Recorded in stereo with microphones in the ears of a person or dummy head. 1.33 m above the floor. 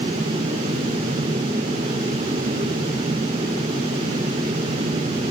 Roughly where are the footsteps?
No footsteps in this recording.